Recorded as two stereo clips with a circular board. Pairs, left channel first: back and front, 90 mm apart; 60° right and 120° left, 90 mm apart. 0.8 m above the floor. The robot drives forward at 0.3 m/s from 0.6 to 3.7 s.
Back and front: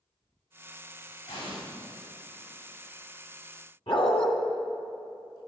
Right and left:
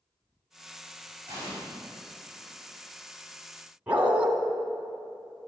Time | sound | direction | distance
1.3 | an explosion | straight behind | 6.5 m
3.9 | a dog barking | 165° right | 2.5 m